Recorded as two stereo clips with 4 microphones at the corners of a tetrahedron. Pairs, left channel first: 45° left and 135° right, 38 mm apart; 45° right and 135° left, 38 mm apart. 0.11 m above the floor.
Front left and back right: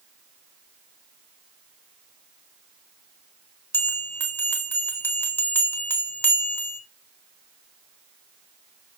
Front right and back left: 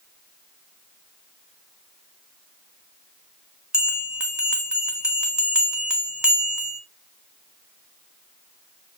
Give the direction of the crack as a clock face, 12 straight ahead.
I don't hear a crack.